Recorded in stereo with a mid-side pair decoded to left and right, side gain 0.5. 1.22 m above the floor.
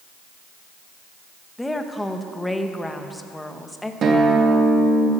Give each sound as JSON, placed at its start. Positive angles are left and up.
{"t": 1.6, "sound": "a woman speaking", "azimuth_deg": 10, "distance_m": 1.5}
{"t": 4.0, "sound": "a guitar", "azimuth_deg": -45, "distance_m": 2.5}